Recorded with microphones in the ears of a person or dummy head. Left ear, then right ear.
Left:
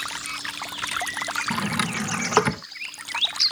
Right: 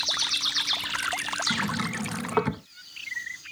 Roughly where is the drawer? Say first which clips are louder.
Left 3 dB; left.